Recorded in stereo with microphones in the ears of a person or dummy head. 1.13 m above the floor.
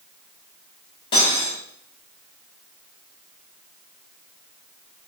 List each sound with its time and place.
1.1 s cutlery clinking: 25° left (ahead or behind), 1.1 m